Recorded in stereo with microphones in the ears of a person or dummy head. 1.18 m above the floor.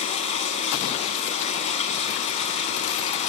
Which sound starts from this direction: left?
Running water, at 0.0 s.